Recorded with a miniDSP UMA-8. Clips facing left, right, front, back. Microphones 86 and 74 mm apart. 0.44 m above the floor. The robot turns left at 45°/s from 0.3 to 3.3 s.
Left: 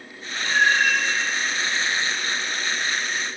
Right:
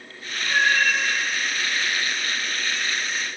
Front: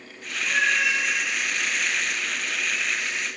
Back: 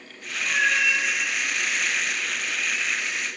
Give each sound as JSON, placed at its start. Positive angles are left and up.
{"t": 0.4, "sound": "a cat meowing", "azimuth_deg": -175, "distance_m": 4.5}